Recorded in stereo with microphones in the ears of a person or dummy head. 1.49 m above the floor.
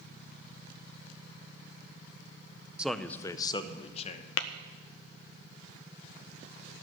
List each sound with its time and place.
2.8 s a man speaking: 5° right (ahead or behind), 0.6 m; by 4.3 s 40° left (ahead or behind), 1.2 m
4.4 s tapping: 65° left (ahead or behind), 0.6 m